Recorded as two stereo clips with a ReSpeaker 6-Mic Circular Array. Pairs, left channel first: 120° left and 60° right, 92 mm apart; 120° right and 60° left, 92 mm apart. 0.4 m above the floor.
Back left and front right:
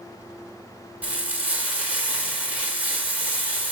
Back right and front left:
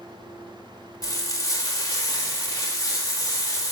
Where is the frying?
125° right, 1.3 m.